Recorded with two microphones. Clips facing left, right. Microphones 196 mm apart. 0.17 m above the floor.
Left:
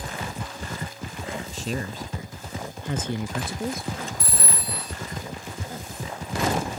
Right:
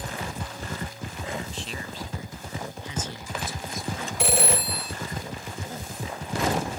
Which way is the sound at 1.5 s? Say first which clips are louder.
Left 6 dB; 40° left (ahead or behind).